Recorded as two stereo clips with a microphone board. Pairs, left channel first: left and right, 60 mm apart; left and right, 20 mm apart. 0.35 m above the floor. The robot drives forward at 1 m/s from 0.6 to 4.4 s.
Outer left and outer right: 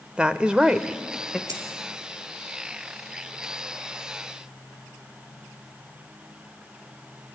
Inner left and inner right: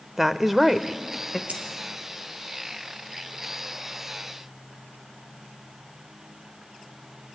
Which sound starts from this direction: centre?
A woman speaking, at 0.2 s.